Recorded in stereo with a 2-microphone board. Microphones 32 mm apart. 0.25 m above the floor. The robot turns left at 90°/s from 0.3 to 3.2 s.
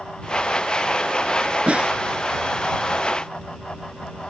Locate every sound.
1.7 s a snare drum: 45° right (ahead or behind); by 1.9 s 20° right (ahead or behind)